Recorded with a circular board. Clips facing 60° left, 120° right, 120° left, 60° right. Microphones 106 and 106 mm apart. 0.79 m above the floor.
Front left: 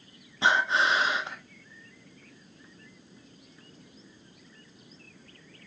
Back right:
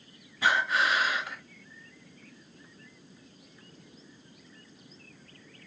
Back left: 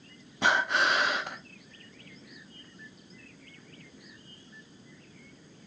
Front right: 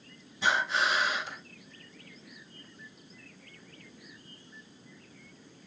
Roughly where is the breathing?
Behind left.